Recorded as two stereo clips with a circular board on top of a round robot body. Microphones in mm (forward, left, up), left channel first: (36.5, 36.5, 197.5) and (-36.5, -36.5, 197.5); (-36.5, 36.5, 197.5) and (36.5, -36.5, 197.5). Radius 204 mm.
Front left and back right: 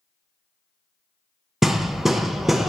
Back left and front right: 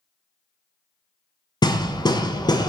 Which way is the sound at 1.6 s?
135° left.